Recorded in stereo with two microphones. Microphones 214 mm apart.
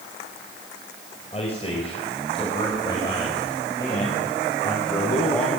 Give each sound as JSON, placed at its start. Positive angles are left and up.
{"t": 1.3, "sound": "a man speaking", "side_deg": 30, "distance_m": 5.0}